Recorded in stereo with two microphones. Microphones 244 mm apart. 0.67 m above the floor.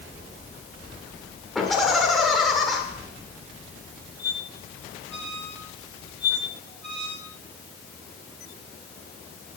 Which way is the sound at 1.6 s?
Centre (ahead or behind).